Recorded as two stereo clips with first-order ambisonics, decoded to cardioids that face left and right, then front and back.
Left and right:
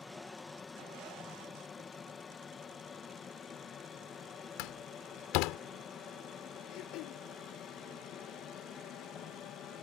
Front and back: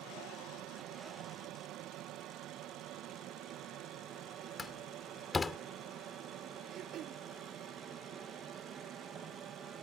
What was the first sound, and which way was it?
An aircraft, 160° left.